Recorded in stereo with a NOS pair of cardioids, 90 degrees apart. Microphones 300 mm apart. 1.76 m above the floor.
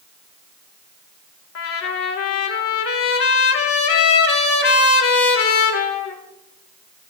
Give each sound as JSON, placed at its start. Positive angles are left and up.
{"t": 1.6, "sound": "a trumpet", "azimuth_deg": 50, "distance_m": 3.0}